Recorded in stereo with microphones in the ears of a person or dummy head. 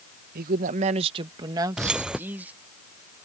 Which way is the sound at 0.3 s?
55° right (ahead or behind).